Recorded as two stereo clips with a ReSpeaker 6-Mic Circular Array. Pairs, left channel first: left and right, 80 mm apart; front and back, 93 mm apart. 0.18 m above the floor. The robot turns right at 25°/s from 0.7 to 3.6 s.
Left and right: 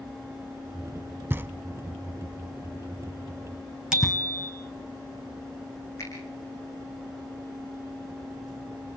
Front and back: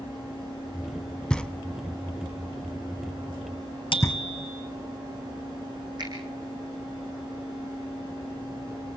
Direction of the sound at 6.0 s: 140° left.